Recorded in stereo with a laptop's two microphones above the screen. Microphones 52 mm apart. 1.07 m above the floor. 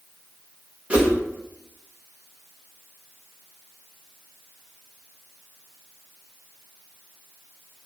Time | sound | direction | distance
0.9 | a whoosh | 25° right (ahead or behind) | 1.0 m